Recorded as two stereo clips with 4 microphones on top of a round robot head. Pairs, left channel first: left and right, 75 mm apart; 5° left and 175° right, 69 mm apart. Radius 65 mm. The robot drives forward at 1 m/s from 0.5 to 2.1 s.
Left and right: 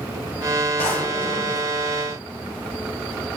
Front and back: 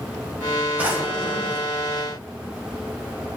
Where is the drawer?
120° left, 1.3 m; by 1.6 s 145° left, 1.8 m.